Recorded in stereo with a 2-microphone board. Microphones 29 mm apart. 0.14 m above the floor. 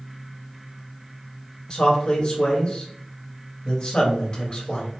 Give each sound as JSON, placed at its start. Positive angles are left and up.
{"t": 1.7, "sound": "a man speaking", "side_deg": 35, "distance_m": 2.0}